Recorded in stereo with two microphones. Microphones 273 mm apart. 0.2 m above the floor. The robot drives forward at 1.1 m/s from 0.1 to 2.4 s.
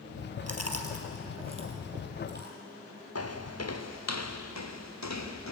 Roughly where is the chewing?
Right.